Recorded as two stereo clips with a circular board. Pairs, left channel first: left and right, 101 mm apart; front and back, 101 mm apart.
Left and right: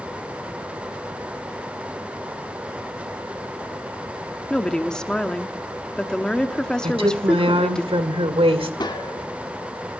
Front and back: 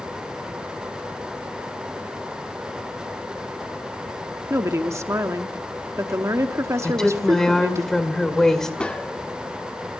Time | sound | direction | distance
4.5 | a woman speaking | 165° left | 1.1 m
6.8 | a woman speaking | 85° right | 2 m
8.8 | a gunshot | 75° left | 1.4 m